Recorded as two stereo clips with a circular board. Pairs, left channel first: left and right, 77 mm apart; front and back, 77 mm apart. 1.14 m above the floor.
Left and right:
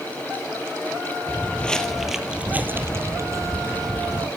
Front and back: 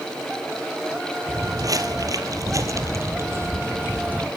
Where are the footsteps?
150° left, 1.9 m; by 4.3 s 115° right, 3 m.